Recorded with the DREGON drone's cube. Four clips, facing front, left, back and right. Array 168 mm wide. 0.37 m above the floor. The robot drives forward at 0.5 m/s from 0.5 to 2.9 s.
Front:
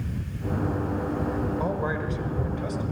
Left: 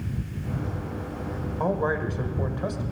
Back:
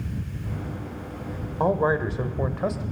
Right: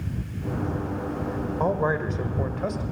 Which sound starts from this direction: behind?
A man speaking, at 1.6 s.